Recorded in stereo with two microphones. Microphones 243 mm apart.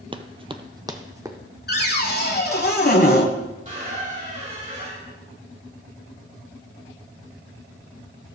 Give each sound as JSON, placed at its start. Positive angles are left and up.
{"t": 0.1, "sound": "running footsteps", "side_deg": -20, "distance_m": 0.6}
{"t": 1.7, "sound": "a cupboard door", "side_deg": 40, "distance_m": 1.1}
{"t": 3.6, "sound": "a squeak", "side_deg": -30, "distance_m": 3.0}